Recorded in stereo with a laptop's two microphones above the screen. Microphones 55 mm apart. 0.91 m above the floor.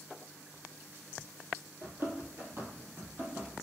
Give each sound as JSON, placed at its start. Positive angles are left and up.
{"t": 1.8, "sound": "running footsteps", "side_deg": -45, "distance_m": 1.2}